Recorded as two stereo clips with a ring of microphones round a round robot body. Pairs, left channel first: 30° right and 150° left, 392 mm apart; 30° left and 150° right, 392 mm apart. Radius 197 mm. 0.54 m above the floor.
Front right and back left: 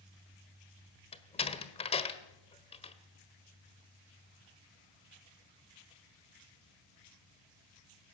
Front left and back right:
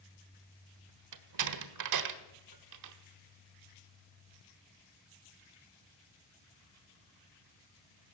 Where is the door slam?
105° right, 1.5 m.